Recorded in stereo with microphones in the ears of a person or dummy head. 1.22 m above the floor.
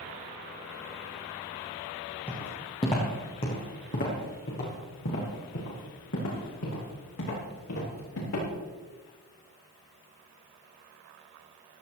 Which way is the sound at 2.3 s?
10° left (ahead or behind).